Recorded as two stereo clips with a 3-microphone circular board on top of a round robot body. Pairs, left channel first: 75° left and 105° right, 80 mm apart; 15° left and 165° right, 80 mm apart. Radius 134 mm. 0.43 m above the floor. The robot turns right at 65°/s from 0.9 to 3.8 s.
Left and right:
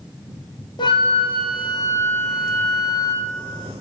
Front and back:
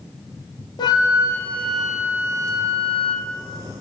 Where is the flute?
50° left, 1.2 m; by 3.3 s 160° right, 1.2 m.